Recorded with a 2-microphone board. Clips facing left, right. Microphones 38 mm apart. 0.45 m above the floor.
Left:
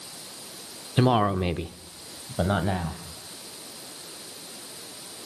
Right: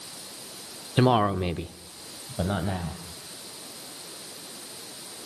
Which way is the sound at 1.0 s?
10° right (ahead or behind).